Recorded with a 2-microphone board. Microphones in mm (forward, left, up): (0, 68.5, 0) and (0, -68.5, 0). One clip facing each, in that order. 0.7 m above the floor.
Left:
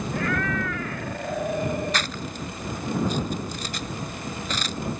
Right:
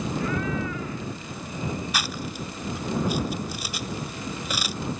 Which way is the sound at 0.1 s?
75° left (ahead or behind).